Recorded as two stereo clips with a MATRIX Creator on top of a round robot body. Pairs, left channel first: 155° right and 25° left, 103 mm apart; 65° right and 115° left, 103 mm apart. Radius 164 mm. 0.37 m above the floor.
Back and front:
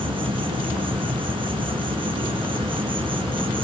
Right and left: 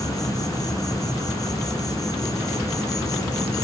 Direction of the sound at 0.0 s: 15° right.